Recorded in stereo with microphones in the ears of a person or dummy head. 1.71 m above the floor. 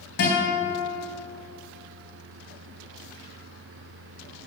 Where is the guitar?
45° left (ahead or behind), 3 m.